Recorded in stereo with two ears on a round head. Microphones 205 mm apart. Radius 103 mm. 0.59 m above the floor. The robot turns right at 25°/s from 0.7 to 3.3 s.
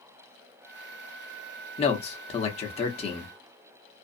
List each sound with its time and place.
1.8 s a man speaking: 25° left (ahead or behind), 0.7 m